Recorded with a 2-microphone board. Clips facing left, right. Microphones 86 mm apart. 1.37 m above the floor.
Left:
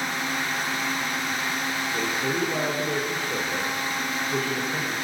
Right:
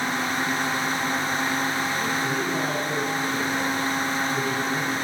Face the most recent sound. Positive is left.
turn(degrees=85)